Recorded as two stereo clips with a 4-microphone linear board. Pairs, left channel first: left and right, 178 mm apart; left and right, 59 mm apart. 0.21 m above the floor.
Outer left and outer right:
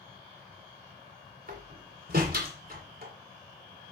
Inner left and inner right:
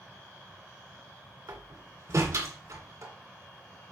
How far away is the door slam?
About 2 m.